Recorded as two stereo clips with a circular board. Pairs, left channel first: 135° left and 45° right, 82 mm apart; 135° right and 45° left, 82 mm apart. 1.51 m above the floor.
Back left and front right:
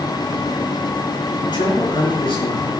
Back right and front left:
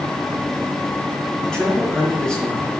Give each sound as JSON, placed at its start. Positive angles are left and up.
{"t": 1.4, "sound": "a man speaking", "azimuth_deg": 140, "distance_m": 4.5}